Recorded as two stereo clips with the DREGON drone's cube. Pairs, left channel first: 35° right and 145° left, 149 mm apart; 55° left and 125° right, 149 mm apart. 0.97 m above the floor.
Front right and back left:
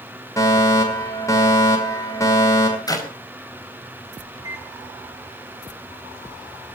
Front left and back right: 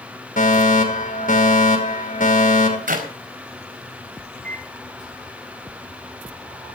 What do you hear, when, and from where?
0.4 s a fire alarm: 35° left, 5.5 m
2.9 s a clap: 100° right, 4.5 m
4.3 s a microwave: 150° right, 6.5 m